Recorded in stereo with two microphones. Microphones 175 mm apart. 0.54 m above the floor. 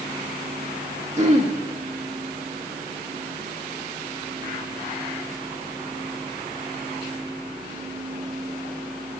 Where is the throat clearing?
40° right (ahead or behind), 1.4 m.